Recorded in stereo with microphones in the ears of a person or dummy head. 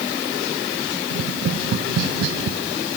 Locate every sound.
1.1 s tapping: 65° right (ahead or behind), 0.5 m